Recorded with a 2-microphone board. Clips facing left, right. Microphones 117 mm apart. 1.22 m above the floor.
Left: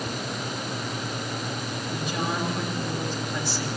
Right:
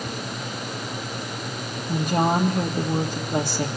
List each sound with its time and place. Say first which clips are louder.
1.9 s a woman speaking: right 9 dB; 65° right (ahead or behind), 2.5 m